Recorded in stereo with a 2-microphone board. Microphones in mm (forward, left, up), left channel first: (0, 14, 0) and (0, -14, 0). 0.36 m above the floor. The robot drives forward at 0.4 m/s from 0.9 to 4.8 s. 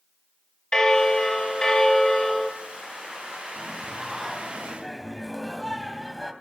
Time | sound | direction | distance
0.7 | a bell | 25° left (ahead or behind) | 2 m
3.6 | singing | centre (ahead or behind) | 3 m